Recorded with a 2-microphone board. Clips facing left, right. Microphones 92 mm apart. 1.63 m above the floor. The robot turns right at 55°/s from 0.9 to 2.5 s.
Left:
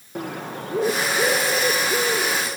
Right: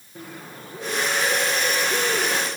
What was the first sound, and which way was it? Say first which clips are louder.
A bird: left 9 dB; 110° left.